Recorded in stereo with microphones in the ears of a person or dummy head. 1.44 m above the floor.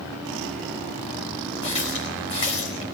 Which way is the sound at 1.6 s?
25° left (ahead or behind).